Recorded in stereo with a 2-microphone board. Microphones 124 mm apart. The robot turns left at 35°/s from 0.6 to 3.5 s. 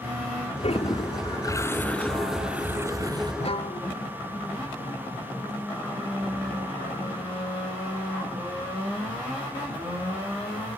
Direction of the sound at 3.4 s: 55° left (ahead or behind).